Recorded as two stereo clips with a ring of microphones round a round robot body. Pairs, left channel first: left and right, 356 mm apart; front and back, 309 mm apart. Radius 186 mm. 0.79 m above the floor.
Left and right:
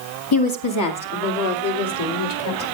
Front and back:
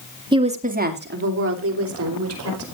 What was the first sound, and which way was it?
A woman speaking, 105° left.